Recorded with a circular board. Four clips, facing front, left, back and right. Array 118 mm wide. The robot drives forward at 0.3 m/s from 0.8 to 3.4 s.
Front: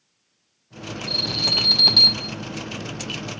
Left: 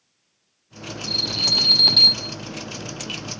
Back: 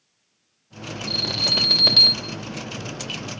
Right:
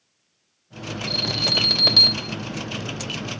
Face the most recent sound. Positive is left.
turn(degrees=-150)